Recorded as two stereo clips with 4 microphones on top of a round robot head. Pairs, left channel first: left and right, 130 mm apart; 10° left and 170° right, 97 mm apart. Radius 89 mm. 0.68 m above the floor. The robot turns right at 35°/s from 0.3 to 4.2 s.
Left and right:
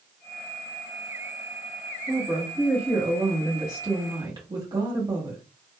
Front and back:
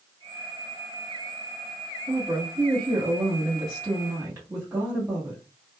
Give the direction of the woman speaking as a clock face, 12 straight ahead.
6 o'clock.